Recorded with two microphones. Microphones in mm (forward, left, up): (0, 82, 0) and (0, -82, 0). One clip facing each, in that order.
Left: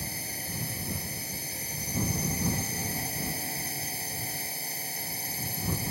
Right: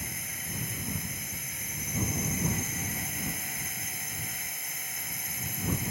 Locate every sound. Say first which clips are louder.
0.0 s a drone: left 3 dB; 30° left (ahead or behind)